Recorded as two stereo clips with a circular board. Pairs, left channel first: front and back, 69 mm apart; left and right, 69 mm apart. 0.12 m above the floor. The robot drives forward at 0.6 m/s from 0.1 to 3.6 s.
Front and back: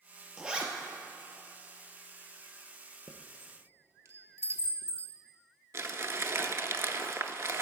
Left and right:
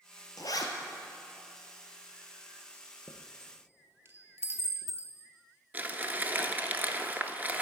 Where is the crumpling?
150° right, 0.5 m.